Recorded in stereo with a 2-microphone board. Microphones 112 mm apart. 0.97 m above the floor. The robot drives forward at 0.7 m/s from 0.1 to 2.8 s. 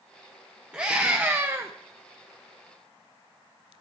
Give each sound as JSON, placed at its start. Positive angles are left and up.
{"t": 0.7, "sound": "a scream", "side_deg": -10, "distance_m": 1.0}